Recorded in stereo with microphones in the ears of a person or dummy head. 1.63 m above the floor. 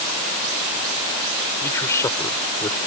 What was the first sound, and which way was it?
A man speaking, 15° left (ahead or behind).